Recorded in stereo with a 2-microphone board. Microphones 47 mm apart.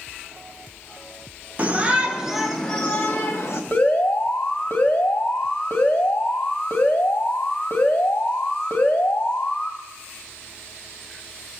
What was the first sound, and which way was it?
A shout, 35° right (ahead or behind).